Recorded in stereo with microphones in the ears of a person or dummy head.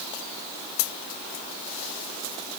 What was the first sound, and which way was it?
Only background noise.